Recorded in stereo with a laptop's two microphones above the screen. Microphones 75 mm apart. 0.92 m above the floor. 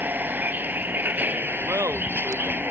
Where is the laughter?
45° right (ahead or behind).